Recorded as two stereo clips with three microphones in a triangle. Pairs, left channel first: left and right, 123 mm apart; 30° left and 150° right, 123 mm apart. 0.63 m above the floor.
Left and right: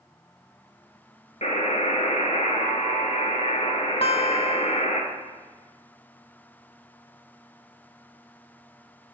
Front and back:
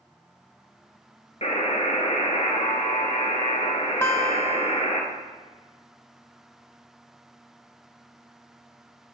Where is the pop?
I don't hear a pop.